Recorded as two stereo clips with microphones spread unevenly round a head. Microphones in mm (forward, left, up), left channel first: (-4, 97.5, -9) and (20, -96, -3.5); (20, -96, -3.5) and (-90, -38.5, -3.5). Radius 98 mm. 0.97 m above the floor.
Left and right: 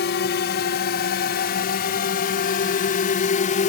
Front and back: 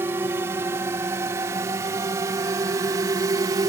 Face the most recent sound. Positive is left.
turn(degrees=105)